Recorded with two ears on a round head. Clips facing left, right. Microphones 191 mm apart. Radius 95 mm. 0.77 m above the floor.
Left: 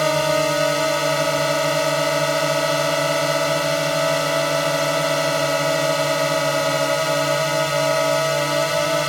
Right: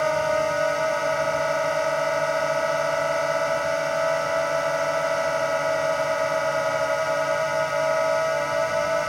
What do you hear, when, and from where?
0.0 s a drone: 50° left (ahead or behind)